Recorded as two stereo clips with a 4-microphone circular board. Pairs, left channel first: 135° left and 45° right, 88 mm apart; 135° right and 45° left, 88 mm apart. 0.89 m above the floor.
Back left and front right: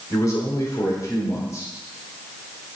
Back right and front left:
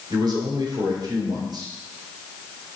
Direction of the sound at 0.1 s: 85° left.